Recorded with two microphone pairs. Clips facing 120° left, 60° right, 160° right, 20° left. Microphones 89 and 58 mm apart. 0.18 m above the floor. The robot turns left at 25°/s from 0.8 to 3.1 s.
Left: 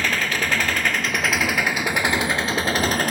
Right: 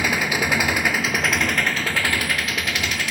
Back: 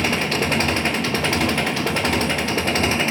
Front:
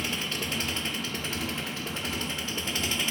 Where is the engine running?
140° right, 0.8 m; by 3.1 s 165° left, 0.8 m.